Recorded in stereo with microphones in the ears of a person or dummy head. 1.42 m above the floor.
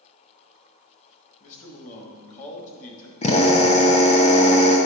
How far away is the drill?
About 0.8 m.